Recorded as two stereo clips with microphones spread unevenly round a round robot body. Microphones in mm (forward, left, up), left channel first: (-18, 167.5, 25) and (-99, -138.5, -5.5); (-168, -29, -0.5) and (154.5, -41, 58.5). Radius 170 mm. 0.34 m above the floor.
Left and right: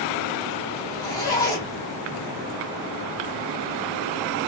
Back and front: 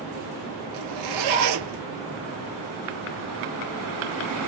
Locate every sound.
0.7 s a zipper: 5° right, 1.5 m